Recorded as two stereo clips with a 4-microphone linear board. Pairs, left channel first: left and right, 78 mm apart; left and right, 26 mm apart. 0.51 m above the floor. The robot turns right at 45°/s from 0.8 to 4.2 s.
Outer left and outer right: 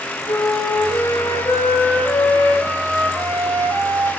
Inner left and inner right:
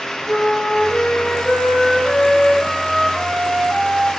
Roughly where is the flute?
Left.